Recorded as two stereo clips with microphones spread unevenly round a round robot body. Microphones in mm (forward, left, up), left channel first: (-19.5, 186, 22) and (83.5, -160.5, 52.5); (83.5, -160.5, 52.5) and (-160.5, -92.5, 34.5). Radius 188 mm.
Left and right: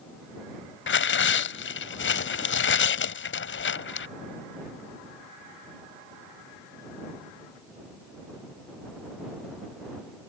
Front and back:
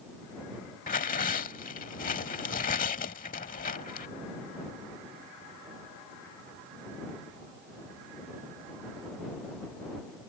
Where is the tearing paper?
50° left.